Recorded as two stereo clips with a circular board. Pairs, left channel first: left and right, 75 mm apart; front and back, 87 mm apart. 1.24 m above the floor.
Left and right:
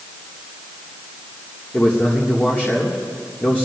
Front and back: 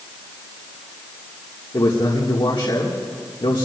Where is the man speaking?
25° left, 1.7 m.